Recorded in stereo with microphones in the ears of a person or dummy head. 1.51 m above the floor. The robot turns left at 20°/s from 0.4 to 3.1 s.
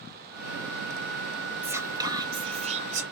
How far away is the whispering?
About 0.8 m.